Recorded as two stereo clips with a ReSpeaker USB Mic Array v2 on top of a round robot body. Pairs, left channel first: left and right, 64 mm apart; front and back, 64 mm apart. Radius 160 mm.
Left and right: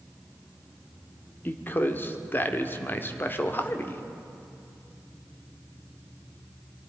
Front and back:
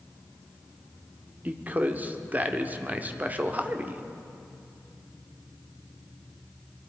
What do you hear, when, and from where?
1.4 s a man speaking: 130° left, 1.8 m